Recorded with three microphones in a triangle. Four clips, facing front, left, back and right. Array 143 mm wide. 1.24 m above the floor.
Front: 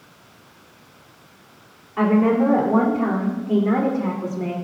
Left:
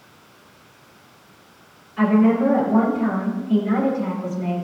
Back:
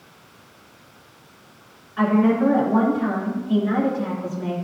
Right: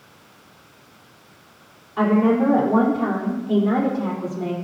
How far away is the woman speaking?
About 4 m.